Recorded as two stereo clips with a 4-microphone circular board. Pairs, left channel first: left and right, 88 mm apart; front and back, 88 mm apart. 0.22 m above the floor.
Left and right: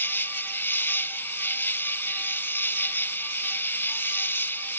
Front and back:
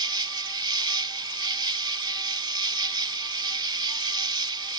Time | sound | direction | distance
0.0 | an insect | 150° left | ?